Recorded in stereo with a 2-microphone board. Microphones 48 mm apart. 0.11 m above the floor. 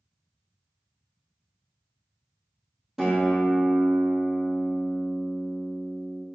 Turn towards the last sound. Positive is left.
turn(degrees=-5)  # may be behind; listen again after turning